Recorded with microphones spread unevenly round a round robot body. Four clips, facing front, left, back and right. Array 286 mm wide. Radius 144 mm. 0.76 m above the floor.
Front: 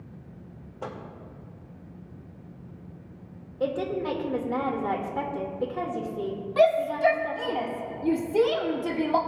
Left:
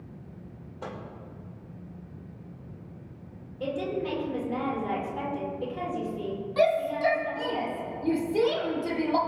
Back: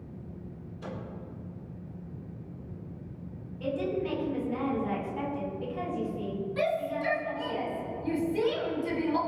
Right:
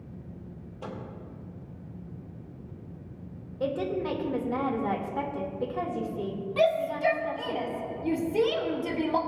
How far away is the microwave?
About 2.5 m.